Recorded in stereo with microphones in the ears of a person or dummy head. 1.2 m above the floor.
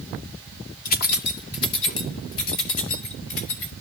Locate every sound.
0.8 s keys jangling: 45° left (ahead or behind), 1.1 m; by 3.8 s 70° left (ahead or behind), 5.5 m